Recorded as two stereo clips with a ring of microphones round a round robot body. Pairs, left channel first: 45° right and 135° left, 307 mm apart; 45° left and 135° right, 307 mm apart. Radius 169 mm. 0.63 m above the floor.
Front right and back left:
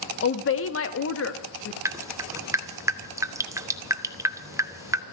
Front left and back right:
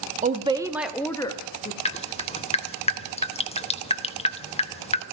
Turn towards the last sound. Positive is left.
turn(degrees=70)